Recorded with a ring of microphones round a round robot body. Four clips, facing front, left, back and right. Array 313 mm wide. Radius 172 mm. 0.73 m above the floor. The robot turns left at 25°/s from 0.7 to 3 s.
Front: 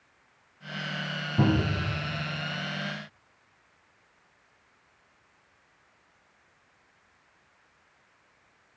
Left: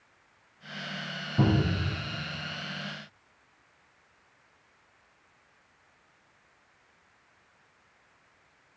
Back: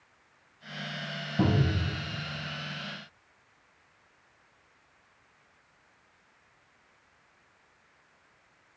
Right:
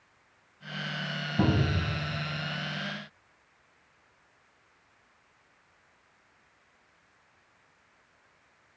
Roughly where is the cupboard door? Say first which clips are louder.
Left 1 dB, front 2 dB; ahead.